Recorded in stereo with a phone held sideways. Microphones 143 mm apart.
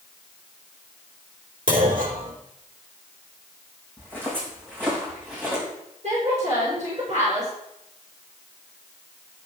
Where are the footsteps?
15° right (ahead or behind), 4.5 m; by 5.6 s 10° right (ahead or behind), 6 m.